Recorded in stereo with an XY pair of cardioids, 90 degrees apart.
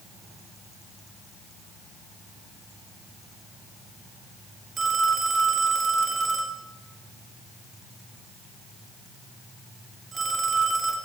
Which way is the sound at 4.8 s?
50° right.